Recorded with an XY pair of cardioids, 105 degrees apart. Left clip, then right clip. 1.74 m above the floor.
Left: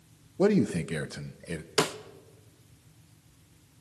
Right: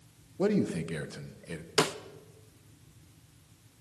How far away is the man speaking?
About 1.3 m.